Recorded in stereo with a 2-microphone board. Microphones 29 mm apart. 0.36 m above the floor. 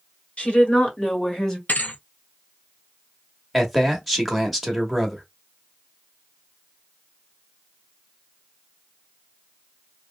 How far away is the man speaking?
About 0.9 m.